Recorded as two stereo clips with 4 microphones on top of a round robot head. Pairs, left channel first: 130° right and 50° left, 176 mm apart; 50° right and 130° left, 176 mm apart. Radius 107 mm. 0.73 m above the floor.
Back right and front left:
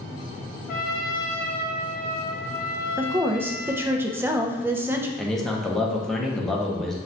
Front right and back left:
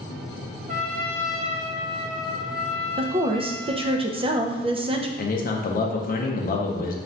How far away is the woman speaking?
About 0.6 m.